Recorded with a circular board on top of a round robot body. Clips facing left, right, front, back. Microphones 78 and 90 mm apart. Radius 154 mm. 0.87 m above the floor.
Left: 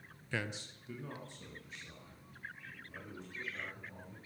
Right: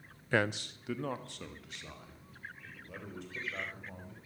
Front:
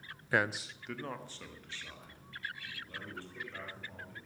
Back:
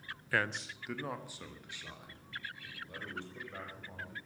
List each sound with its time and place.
0.3 s a man speaking: 60° right, 0.6 m; by 4.2 s 110° right, 5.5 m